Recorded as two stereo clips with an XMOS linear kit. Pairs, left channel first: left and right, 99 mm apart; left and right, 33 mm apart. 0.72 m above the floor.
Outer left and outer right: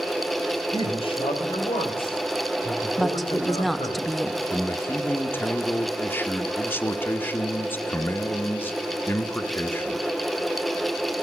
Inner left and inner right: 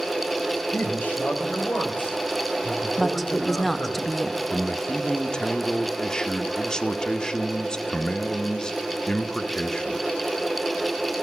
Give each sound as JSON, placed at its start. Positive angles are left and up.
{"t": 0.7, "sound": "a man speaking", "side_deg": 70, "distance_m": 3.0}
{"t": 3.0, "sound": "a woman speaking", "side_deg": 0, "distance_m": 0.5}
{"t": 4.5, "sound": "a man speaking", "side_deg": 20, "distance_m": 0.6}